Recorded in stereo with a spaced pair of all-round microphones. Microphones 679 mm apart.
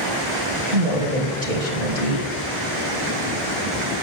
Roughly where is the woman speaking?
Right.